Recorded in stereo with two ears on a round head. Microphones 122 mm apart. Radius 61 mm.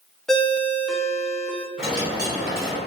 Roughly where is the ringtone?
Centre.